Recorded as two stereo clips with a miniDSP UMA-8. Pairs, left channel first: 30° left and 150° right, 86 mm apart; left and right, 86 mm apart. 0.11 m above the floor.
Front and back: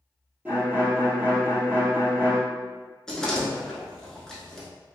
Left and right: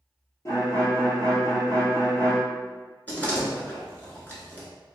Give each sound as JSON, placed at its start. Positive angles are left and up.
{"t": 0.5, "sound": "a violin", "azimuth_deg": 140, "distance_m": 1.3}
{"t": 3.1, "sound": "a door slam", "azimuth_deg": 100, "distance_m": 0.9}